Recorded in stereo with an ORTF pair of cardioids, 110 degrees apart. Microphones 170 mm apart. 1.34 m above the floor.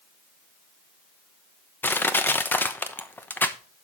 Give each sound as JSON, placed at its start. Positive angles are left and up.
{"t": 1.8, "sound": "crushing", "azimuth_deg": 10, "distance_m": 0.9}